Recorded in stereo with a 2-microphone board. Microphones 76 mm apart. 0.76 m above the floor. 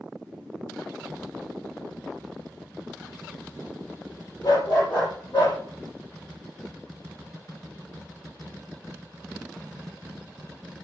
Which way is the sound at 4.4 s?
65° left (ahead or behind).